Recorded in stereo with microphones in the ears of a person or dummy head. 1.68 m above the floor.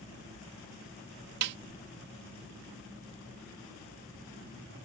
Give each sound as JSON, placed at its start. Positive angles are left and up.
{"t": 1.4, "sound": "a snare drum", "side_deg": -65}